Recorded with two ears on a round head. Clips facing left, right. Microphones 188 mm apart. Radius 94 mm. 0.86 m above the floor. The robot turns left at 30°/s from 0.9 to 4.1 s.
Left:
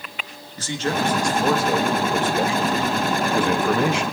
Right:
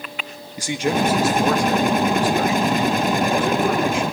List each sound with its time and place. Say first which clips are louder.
0.6 s a man speaking: right 3 dB; 165° right, 1.4 m; by 4.1 s 100° left, 1.4 m